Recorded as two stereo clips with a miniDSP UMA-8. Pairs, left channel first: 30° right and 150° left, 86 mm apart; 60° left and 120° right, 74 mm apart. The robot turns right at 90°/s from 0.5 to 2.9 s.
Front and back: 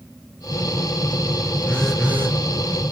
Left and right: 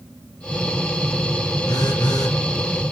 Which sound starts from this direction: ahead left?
A phone buzzing, at 1.7 s.